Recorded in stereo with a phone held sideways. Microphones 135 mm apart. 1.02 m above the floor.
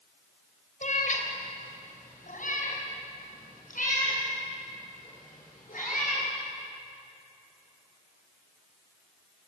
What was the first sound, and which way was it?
A cat meowing, 75° left (ahead or behind).